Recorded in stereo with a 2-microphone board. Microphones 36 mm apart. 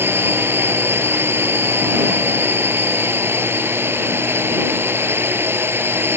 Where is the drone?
70° right (ahead or behind).